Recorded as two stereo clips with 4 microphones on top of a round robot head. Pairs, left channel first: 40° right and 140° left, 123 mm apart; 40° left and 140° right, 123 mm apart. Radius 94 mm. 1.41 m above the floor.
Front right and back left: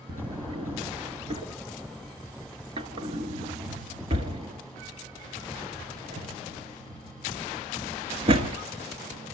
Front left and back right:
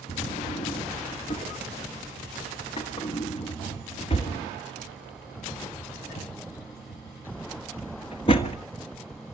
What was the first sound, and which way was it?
A drawer, 95° left.